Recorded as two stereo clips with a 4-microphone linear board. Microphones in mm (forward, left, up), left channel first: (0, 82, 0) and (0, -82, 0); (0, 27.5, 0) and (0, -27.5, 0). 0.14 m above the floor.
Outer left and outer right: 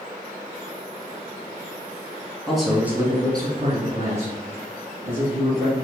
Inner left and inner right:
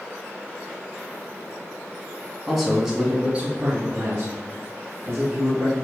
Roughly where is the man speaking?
Centre.